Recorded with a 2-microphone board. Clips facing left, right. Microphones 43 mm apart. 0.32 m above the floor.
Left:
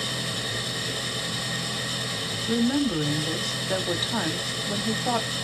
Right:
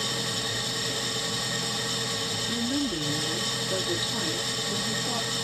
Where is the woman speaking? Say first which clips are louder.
Left 7 dB; 55° left (ahead or behind), 1.4 m.